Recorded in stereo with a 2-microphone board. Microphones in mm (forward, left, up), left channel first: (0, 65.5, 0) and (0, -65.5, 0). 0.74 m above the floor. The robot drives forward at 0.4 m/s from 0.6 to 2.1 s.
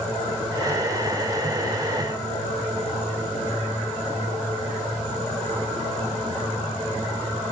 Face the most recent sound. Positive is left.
No sound to turn to.